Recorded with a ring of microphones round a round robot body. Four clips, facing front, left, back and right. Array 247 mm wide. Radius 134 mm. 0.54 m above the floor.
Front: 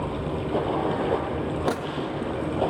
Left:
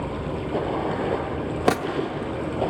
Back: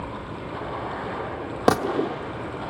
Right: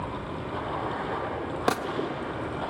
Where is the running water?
45° left, 2 m.